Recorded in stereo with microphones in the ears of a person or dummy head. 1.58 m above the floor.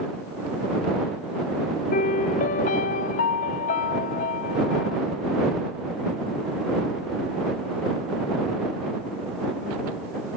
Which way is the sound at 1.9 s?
40° left (ahead or behind).